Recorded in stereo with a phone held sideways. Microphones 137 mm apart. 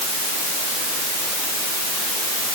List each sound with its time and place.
Only background noise.